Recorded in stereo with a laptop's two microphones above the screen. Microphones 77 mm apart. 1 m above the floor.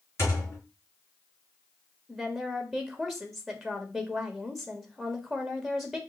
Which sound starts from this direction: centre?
A woman speaking, at 2.1 s.